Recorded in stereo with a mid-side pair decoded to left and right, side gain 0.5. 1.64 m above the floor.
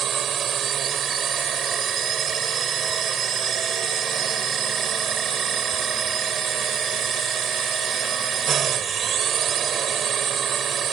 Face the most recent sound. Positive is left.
turn(degrees=-50)